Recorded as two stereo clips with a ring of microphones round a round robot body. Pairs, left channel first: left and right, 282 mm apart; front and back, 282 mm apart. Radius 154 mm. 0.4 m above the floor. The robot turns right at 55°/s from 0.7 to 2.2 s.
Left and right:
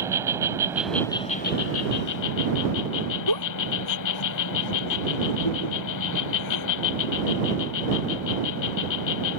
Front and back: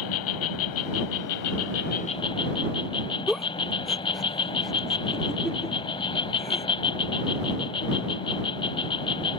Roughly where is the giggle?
Left.